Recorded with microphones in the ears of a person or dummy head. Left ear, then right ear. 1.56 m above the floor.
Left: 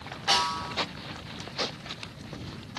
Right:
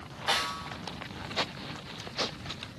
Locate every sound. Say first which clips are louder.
0.3 s a snare drum: left 4 dB; 15° right (ahead or behind), 5 m